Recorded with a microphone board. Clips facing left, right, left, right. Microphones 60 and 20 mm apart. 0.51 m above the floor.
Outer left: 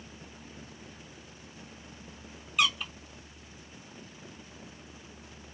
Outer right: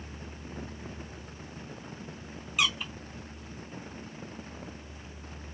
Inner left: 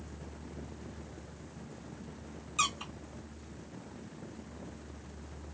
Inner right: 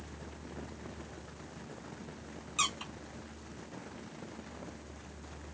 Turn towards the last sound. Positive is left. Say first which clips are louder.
# outer left 1 dB, inner left 1 dB
turn(degrees=-5)  # may be behind; listen again after turning